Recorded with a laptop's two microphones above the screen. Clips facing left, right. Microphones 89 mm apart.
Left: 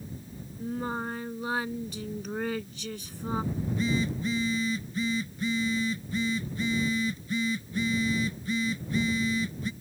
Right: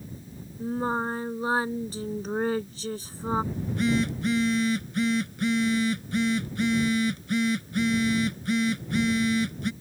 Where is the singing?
35° right (ahead or behind).